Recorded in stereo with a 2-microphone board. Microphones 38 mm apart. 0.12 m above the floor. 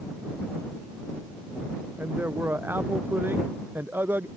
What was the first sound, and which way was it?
A man speaking, 75° right (ahead or behind).